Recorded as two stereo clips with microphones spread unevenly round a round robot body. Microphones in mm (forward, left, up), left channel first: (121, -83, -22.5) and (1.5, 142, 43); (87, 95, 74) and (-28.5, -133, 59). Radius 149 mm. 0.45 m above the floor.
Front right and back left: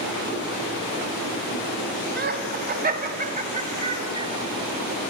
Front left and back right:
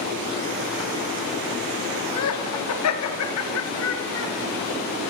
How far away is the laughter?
About 4 m.